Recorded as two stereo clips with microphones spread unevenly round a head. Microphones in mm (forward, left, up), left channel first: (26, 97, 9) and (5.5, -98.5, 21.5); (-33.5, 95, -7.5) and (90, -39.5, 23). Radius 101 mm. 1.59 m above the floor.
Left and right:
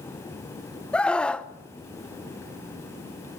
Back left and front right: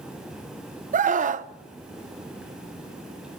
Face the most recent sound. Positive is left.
turn(degrees=0)